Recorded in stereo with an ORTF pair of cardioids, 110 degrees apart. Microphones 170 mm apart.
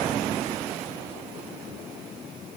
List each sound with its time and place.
Only background noise.